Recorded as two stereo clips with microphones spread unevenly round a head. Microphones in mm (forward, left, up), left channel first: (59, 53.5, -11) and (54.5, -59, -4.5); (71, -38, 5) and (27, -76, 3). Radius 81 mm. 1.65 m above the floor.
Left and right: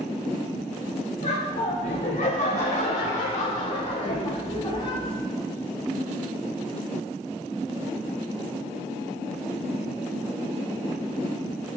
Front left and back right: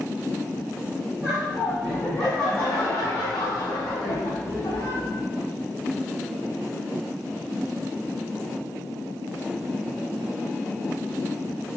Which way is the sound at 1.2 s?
135° left.